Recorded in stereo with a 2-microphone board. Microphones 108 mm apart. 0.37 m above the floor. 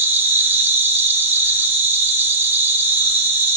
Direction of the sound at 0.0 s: 20° right (ahead or behind).